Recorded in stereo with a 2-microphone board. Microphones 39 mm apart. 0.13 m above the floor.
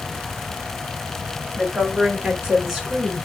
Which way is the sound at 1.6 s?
20° right (ahead or behind).